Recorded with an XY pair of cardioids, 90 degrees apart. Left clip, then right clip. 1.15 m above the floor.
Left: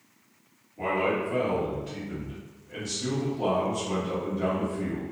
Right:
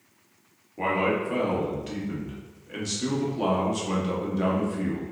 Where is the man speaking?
60° right, 1.0 m.